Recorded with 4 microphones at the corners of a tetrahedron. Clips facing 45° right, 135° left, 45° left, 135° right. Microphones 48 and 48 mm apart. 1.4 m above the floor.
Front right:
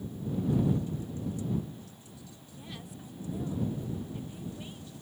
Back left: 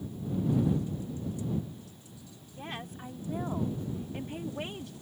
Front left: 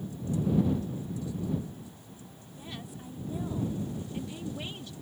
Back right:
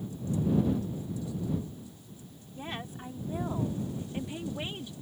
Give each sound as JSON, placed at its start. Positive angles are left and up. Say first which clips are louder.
{"t": 2.5, "sound": "a woman speaking", "louder": "back left 6 dB, back right 5 dB", "azimuth_deg": 180}